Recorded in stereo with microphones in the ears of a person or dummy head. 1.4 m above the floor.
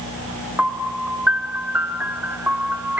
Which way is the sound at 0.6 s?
10° right (ahead or behind).